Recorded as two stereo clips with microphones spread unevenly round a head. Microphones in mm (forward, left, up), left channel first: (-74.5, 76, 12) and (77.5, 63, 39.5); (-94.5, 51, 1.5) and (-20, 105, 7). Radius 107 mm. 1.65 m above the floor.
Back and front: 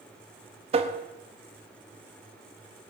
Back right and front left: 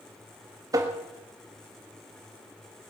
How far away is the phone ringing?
I don't hear a phone ringing.